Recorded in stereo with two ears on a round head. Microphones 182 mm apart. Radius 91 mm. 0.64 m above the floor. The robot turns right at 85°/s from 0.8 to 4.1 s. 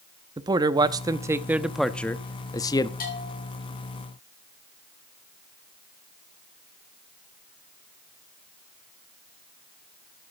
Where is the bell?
135° left, 7.5 m; by 3.5 s straight behind, 7.5 m.